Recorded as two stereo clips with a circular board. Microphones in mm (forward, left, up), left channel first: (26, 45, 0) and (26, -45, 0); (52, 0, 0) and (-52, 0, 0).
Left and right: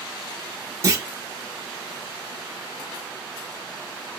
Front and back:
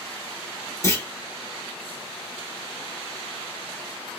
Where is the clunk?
50° right, 1.5 m.